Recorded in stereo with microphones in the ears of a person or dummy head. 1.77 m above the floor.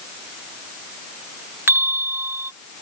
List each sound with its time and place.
1.7 s a bell: 10° right (ahead or behind)